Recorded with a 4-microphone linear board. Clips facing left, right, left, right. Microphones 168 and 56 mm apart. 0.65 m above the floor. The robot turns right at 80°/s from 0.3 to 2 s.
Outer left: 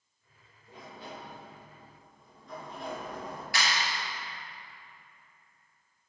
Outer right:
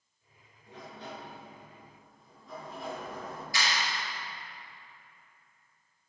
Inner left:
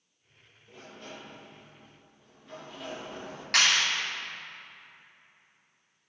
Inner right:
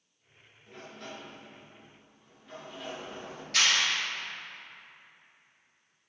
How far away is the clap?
About 4 m.